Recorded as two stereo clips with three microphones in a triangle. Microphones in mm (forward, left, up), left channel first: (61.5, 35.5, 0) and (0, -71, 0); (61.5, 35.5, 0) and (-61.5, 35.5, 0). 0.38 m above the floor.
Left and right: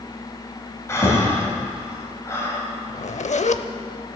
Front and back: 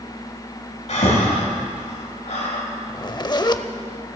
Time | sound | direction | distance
0.9 | breathing | 5° right | 2 m
2.9 | a zipper | 55° left | 0.5 m